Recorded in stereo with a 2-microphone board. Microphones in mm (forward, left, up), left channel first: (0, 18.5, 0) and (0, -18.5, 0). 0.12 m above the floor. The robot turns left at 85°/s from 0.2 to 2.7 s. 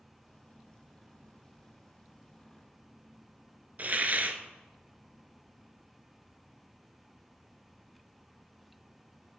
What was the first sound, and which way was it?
A hiss, 45° right (ahead or behind).